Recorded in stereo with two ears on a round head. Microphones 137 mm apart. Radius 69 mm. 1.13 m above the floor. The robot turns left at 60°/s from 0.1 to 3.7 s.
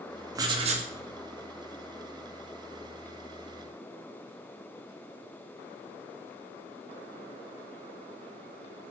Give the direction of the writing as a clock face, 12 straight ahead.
1 o'clock.